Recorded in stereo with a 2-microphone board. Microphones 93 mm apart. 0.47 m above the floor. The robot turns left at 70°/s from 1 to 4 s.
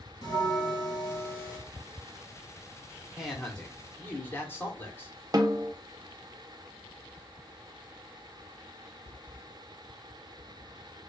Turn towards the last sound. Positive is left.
turn(degrees=-45)  # may be behind; listen again after turning